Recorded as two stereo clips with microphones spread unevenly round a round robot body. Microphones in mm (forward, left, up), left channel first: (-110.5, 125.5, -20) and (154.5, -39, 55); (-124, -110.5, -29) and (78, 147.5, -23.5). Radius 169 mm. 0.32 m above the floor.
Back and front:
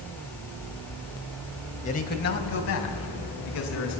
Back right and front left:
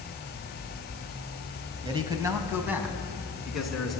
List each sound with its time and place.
1.8 s a man speaking: 115° left, 1.9 m; by 4.0 s 140° left, 4 m